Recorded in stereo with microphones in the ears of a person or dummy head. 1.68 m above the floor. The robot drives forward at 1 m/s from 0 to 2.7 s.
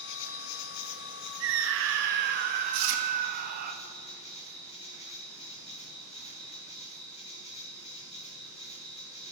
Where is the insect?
60° left (ahead or behind), 1.3 m; by 9.3 s 30° left (ahead or behind), 2.5 m.